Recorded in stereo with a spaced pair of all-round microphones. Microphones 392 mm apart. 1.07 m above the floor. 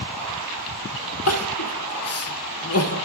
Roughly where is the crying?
Left.